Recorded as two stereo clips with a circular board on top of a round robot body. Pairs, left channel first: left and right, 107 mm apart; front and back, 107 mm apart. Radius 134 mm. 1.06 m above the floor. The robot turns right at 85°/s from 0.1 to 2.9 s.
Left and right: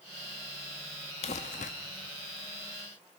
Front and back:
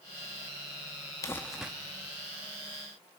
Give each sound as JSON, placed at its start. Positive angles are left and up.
{"t": 1.2, "sound": "crumpling", "azimuth_deg": 60, "distance_m": 0.7}